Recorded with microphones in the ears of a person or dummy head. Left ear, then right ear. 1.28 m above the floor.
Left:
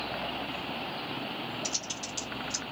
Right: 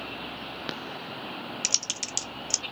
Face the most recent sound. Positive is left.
turn(degrees=-60)  # may be behind; listen again after turning